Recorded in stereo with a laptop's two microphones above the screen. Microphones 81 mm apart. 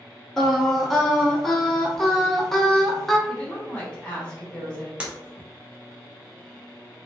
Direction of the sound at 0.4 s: 5° left (ahead or behind).